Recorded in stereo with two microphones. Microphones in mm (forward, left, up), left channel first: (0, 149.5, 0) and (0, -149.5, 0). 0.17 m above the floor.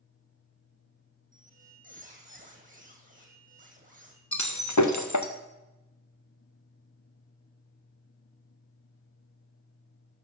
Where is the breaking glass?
70° left (ahead or behind), 1.6 m.